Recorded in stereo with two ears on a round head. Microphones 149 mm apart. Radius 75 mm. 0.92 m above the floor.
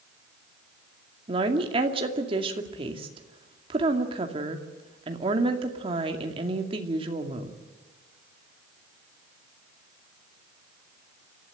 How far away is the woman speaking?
About 2.5 m.